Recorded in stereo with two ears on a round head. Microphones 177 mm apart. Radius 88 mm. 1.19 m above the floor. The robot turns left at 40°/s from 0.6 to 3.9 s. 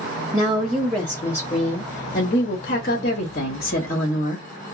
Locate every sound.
0.3 s a woman speaking: 170° right, 0.8 m; by 4.5 s 55° left, 0.8 m